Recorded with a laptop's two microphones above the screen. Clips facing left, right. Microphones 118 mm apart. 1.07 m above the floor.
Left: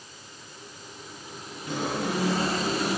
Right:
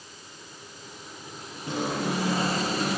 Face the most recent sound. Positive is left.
turn(degrees=-30)  # may be behind; listen again after turning